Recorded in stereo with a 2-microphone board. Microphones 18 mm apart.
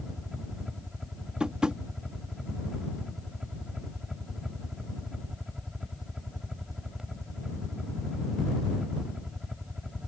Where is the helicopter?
20° right (ahead or behind).